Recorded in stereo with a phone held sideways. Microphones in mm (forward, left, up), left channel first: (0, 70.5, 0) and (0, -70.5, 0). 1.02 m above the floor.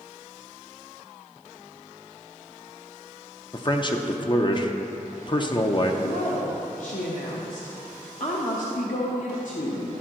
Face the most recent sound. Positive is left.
turn(degrees=65)  # may be behind; listen again after turning